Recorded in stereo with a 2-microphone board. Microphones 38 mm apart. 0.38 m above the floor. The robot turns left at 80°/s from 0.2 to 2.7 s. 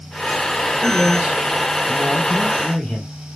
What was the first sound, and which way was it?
A man speaking, 25° right (ahead or behind).